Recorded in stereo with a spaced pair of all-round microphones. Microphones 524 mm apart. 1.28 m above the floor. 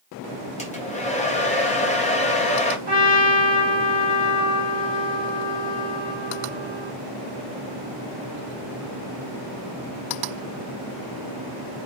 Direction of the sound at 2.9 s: 50° right (ahead or behind).